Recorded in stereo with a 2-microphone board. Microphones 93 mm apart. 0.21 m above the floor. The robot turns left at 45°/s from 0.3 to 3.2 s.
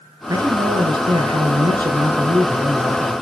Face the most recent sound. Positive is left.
turn(degrees=-175)